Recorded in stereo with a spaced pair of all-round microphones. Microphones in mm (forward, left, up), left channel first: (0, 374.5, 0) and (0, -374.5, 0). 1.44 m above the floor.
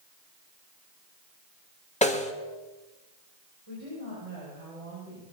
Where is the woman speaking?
50° right (ahead or behind), 7 m.